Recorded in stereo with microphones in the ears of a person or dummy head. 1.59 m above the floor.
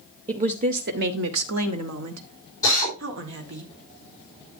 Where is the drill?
15° left (ahead or behind), 5 m.